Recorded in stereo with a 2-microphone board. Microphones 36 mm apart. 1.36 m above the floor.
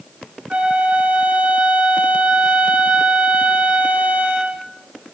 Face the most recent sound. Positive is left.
turn(degrees=-35)  # may be behind; listen again after turning